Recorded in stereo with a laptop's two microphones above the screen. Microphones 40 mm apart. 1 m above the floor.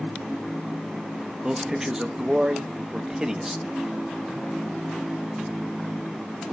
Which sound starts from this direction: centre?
A man speaking, at 1.4 s.